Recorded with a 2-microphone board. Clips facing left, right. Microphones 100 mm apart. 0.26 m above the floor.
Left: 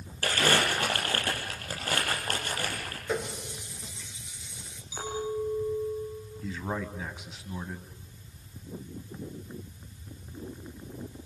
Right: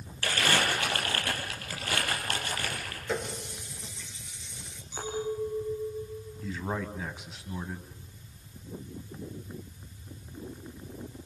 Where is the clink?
5° left (ahead or behind), 7.5 m.